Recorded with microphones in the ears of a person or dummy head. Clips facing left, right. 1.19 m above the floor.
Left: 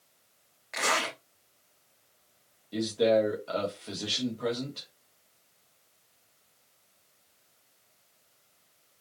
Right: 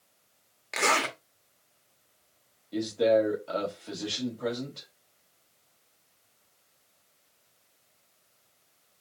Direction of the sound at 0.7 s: 40° right (ahead or behind).